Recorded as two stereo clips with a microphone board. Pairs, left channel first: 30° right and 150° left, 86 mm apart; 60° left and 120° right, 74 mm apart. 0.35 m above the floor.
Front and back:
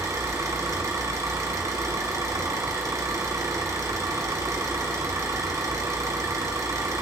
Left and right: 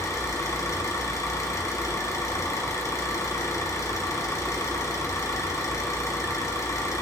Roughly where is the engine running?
Left.